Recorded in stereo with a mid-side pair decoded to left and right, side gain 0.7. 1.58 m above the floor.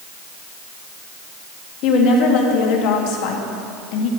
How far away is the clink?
No clink in this recording.